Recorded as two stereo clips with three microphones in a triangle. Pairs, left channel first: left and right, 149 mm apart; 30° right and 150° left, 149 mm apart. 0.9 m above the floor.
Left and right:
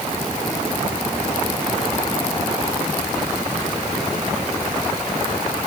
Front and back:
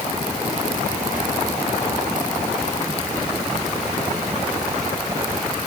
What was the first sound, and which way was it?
Only background noise.